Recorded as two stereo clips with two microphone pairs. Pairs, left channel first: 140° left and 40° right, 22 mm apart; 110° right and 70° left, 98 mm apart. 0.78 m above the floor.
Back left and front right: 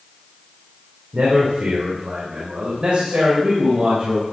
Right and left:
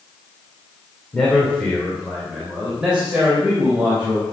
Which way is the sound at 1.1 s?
30° right.